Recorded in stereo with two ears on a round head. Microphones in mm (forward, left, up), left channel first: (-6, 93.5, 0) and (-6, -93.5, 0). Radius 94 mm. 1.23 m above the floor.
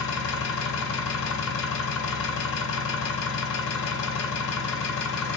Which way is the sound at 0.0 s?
65° left (ahead or behind).